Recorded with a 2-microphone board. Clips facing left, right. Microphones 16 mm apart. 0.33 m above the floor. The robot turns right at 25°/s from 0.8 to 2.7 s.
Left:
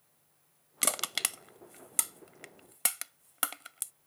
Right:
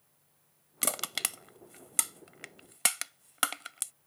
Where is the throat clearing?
No throat clearing in this recording.